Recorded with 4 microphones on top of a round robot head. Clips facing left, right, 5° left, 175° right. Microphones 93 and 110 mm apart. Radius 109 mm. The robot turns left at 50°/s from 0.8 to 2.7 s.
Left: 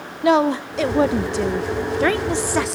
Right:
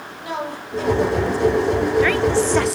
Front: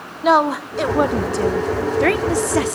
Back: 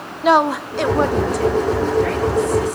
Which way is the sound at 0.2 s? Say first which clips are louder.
Left 12 dB, back 1 dB; 95° left.